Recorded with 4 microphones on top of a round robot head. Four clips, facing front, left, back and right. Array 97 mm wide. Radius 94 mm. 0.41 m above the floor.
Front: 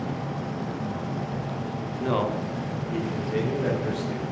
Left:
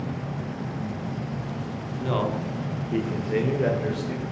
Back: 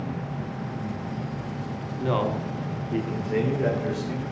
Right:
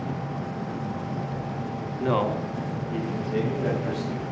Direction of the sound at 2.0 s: 80° right.